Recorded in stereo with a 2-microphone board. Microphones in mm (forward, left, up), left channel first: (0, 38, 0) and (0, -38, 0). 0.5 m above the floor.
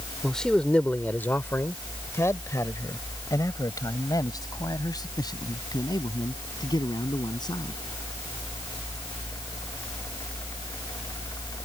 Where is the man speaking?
5° left (ahead or behind); by 7.8 s 70° left (ahead or behind).